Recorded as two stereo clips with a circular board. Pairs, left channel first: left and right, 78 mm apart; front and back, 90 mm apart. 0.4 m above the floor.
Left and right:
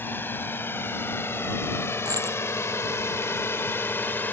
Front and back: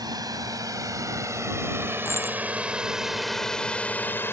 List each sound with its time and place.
0.0 s a drone: 150° left; by 4.3 s 45° left
2.0 s a dropped coin: 55° right